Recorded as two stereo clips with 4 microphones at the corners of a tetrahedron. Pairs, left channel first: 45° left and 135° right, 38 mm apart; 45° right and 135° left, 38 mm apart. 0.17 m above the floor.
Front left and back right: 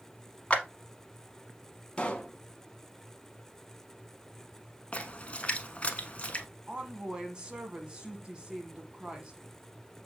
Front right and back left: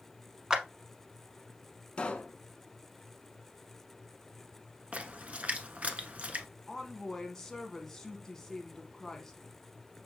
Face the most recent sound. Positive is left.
turn(degrees=-100)